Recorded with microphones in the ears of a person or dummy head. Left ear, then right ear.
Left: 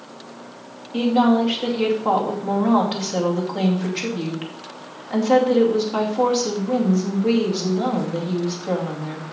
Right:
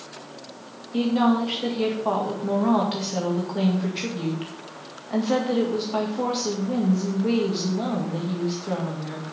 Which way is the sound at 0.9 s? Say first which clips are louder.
Left 4 dB; 10° left (ahead or behind).